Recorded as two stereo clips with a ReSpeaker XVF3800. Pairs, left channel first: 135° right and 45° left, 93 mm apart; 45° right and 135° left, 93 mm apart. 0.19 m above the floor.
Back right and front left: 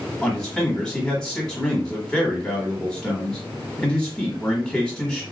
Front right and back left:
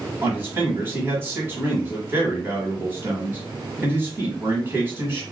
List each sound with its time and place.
0.2 s a man speaking: 155° left, 1.3 m